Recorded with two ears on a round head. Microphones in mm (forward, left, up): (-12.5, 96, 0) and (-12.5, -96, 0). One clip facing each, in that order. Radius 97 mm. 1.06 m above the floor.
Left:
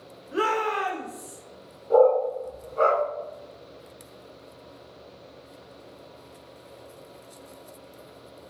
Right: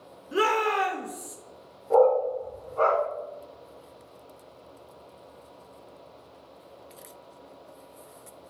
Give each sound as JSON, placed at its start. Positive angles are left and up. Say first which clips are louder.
{"t": 0.3, "sound": "a shout", "louder": "right 1 dB", "side_deg": -40, "distance_m": 0.8}
{"t": 1.9, "sound": "a dog barking", "louder": "left 2 dB", "side_deg": 20, "distance_m": 1.2}